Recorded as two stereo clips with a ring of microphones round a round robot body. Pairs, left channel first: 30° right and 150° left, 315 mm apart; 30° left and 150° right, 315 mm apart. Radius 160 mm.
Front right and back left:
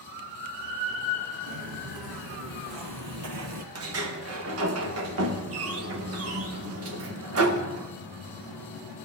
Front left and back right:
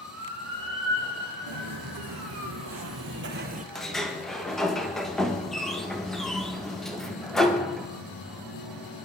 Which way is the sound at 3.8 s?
120° left.